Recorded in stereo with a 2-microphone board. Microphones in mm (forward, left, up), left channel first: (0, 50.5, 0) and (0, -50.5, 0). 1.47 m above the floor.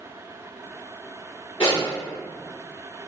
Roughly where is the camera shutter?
No camera shutter in this recording.